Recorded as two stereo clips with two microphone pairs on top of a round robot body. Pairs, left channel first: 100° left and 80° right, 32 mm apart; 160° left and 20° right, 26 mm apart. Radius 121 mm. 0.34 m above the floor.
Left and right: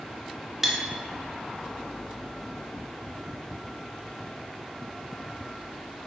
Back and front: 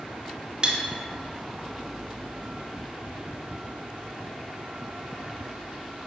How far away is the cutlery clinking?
About 0.6 m.